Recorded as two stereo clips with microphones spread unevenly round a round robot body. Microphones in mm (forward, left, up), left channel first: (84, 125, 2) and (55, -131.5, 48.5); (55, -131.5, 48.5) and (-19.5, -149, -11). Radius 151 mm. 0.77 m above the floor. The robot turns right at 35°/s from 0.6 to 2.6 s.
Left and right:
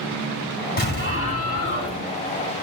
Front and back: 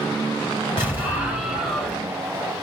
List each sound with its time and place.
0.8 s an explosion: 30° left, 6 m; by 2.0 s 70° left, 6 m